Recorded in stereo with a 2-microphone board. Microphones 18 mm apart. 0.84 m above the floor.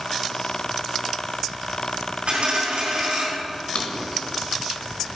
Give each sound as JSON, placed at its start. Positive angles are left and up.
{"t": 2.3, "sound": "a dropped coin", "side_deg": -65, "distance_m": 3.5}
{"t": 3.8, "sound": "a drawer", "side_deg": 55, "distance_m": 1.0}